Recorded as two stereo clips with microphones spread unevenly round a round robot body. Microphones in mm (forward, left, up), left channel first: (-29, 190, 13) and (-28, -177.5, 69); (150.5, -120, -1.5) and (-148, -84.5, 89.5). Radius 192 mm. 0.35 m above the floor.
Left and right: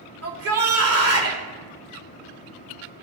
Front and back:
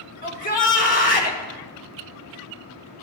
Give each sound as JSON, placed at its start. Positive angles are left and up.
{"t": 0.2, "sound": "a shout", "azimuth_deg": -40, "distance_m": 2.0}